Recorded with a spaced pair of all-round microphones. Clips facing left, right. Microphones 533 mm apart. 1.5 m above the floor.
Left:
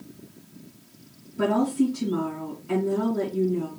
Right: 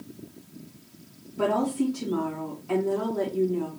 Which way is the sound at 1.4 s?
45° left (ahead or behind).